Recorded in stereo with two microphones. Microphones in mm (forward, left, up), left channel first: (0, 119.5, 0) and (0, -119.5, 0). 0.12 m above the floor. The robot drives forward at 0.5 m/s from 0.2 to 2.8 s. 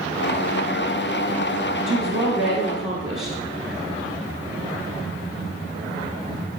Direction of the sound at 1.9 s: 55° right (ahead or behind).